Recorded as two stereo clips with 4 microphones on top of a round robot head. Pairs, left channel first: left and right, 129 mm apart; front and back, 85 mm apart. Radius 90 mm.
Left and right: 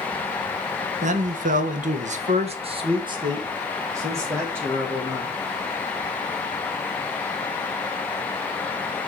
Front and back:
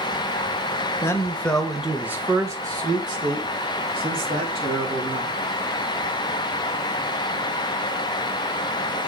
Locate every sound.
1.0 s a man speaking: 65° right, 1.5 m; by 5.4 s 165° right, 4 m